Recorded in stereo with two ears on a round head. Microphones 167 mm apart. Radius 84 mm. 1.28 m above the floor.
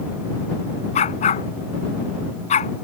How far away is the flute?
No flute in this recording.